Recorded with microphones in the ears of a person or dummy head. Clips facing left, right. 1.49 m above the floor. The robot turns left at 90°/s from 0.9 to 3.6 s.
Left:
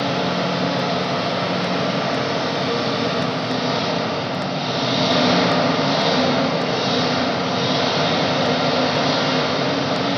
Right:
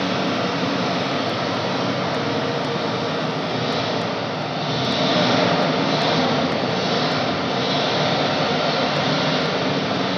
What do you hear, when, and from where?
0.0 s an engine running: 125° right, 4 m; by 10.2 s 10° right, 4 m